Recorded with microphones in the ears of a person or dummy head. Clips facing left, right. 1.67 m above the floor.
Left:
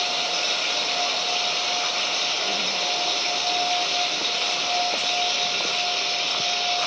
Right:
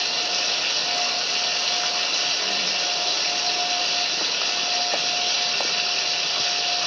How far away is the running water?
About 3 m.